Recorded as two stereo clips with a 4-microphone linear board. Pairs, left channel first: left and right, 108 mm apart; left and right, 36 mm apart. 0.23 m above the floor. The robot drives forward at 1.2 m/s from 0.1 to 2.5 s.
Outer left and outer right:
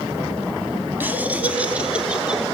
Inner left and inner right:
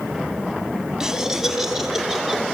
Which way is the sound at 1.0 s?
20° right (ahead or behind).